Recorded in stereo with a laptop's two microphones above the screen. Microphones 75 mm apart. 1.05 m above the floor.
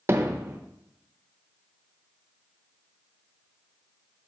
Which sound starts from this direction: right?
Hammering, at 0.1 s.